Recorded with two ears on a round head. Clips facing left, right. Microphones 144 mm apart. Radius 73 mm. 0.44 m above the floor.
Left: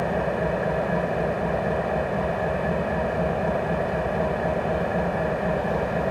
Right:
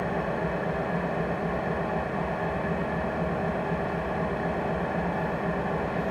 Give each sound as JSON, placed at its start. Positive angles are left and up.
{"t": 0.0, "sound": "an engine running", "side_deg": 60, "distance_m": 1.2}